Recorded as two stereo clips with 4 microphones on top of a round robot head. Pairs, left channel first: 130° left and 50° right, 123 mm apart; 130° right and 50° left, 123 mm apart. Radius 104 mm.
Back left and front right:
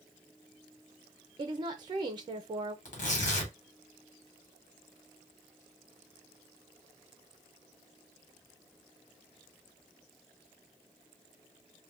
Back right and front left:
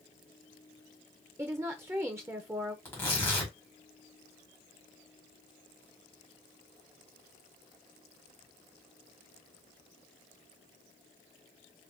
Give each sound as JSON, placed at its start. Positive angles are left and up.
{"t": 1.4, "sound": "a woman speaking", "azimuth_deg": -15, "distance_m": 0.5}
{"t": 2.9, "sound": "tearing paper", "azimuth_deg": 155, "distance_m": 1.4}